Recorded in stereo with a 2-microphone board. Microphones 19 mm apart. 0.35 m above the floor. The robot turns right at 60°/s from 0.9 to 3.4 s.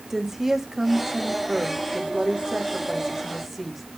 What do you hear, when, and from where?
0.1 s a woman speaking: 165° right, 1.8 m; by 3.8 s 15° right, 1.8 m